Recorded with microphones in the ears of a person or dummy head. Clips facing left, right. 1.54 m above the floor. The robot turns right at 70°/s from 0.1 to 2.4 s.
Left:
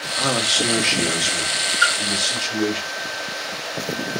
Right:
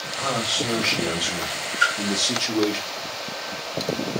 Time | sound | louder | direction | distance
0.2 | a man speaking | left 3 dB | 125° left | 1.0 m
1.8 | a splash | left 2 dB | 40° right (ahead or behind) | 1.2 m